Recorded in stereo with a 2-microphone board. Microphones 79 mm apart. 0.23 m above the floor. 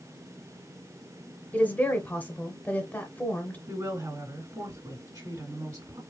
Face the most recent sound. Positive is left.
turn(degrees=-45)  # may be behind; listen again after turning